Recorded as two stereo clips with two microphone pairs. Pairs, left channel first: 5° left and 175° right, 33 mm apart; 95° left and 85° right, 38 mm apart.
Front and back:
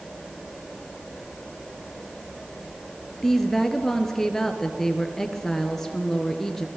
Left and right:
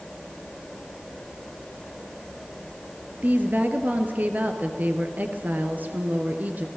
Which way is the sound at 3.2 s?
75° right.